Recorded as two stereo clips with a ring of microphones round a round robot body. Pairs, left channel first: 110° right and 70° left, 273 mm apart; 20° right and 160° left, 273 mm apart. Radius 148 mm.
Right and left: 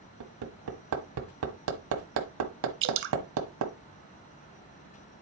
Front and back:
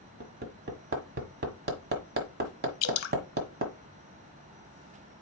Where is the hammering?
100° left, 1.4 m.